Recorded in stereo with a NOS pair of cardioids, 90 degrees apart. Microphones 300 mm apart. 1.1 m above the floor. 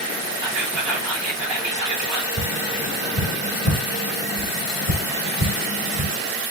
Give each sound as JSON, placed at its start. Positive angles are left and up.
{"t": 0.4, "sound": "whispering", "azimuth_deg": -65, "distance_m": 1.8}
{"t": 2.4, "sound": "tapping", "azimuth_deg": -60, "distance_m": 1.8}